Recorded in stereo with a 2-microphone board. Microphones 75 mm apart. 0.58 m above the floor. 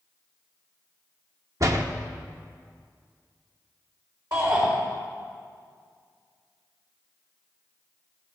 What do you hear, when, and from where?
1.6 s a door slam: 45° right (ahead or behind), 0.8 m
4.3 s a shout: 60° right (ahead or behind), 4 m